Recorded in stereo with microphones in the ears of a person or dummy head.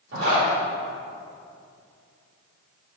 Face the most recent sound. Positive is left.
turn(degrees=-60)  # may be behind; listen again after turning